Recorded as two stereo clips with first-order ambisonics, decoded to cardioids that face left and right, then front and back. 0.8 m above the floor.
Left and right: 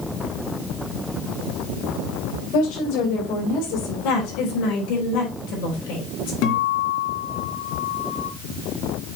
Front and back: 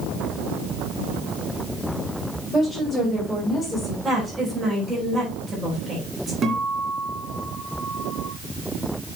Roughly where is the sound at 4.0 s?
Left.